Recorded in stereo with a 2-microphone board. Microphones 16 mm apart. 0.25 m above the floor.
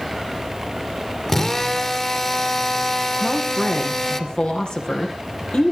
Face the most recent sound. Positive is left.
turn(degrees=85)